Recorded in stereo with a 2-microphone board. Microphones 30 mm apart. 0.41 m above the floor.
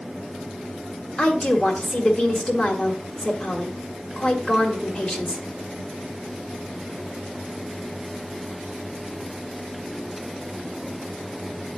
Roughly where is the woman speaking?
Left.